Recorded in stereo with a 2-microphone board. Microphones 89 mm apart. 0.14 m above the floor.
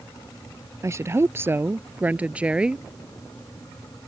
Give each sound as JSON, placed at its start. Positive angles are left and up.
{"t": 0.8, "sound": "a woman speaking", "side_deg": -35}